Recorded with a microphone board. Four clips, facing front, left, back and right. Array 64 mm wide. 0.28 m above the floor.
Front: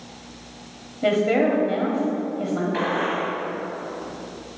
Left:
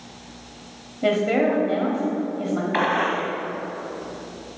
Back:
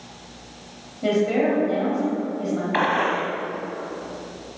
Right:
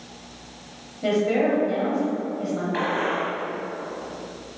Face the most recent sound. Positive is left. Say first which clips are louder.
# left 3 dB, back 2 dB
turn(degrees=140)